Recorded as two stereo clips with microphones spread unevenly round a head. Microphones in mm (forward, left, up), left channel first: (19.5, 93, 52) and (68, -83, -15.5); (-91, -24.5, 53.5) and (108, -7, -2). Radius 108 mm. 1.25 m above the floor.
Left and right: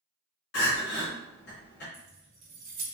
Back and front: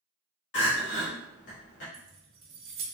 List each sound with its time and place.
0.5 s crying: 150° left, 1.9 m
1.9 s keys jangling: 25° right, 1.2 m